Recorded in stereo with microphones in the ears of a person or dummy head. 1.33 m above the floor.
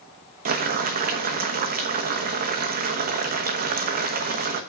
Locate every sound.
0.5 s boiling: 50° right (ahead or behind), 1.3 m